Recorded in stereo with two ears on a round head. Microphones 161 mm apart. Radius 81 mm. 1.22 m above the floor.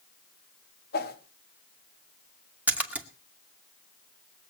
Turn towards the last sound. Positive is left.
turn(degrees=-10)  # may be behind; listen again after turning